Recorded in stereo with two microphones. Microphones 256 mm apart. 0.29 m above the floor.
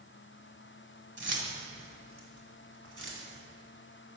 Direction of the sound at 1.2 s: 45° right (ahead or behind).